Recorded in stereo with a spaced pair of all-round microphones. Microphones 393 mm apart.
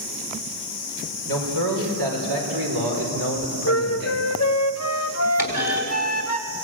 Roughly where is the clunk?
Left.